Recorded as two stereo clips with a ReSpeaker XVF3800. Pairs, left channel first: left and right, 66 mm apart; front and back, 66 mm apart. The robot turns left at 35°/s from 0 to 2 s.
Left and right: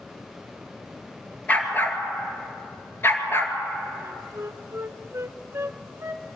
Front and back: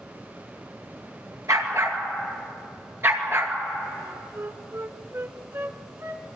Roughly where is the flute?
Behind right.